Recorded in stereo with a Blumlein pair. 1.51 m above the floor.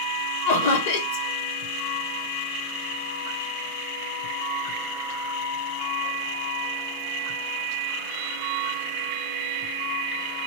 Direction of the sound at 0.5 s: 60° left.